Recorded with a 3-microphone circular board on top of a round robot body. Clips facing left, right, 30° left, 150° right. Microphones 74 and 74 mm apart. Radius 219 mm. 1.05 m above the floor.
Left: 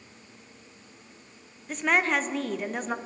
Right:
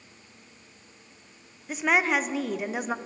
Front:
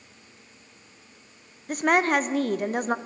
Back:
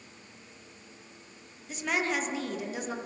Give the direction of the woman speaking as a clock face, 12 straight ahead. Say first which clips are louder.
Right 1 dB, front 9 dB; 12 o'clock.